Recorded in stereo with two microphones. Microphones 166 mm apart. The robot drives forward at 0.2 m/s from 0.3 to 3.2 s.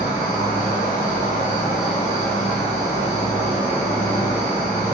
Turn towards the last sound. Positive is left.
turn(degrees=40)  # may be behind; listen again after turning